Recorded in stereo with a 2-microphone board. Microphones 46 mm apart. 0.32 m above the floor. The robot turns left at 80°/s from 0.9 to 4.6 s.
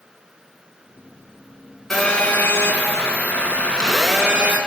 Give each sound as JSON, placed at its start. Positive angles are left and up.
{"t": 1.9, "sound": "a phone buzzing", "azimuth_deg": 170, "distance_m": 3.5}